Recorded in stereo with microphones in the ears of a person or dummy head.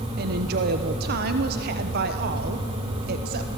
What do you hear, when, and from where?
0.2 s a woman speaking: 60° right (ahead or behind), 1.0 m